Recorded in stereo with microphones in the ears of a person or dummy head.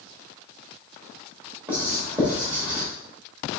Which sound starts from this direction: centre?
Writing, at 1.7 s.